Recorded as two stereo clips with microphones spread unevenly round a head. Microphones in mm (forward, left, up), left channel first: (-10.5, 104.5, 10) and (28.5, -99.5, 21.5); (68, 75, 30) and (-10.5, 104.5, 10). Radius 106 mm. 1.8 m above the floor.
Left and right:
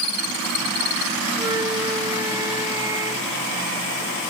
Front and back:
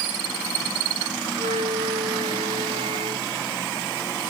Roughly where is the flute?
Behind right.